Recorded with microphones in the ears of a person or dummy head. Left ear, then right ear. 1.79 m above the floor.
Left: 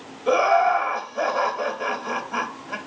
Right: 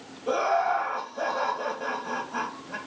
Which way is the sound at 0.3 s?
70° left (ahead or behind).